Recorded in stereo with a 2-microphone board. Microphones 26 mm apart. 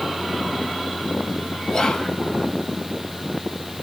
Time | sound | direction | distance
1.7 | whispering | 25° left (ahead or behind) | 0.7 m